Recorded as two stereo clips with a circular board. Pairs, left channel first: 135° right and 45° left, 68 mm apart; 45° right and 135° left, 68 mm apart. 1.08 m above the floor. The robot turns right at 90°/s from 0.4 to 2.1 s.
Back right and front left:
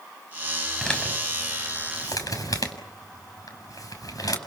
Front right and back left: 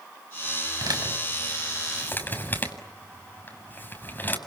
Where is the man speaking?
140° left, 7 m; by 4.4 s 105° right, 7 m.